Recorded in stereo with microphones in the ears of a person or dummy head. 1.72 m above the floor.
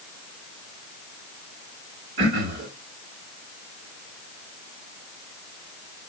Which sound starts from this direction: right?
Throat clearing, at 2.2 s.